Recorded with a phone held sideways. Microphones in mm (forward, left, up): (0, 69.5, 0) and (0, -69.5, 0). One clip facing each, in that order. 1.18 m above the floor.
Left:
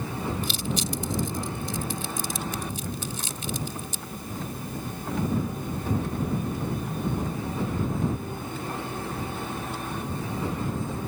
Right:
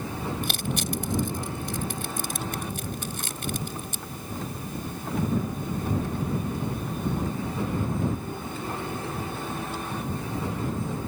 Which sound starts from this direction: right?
Crushing, at 0.4 s.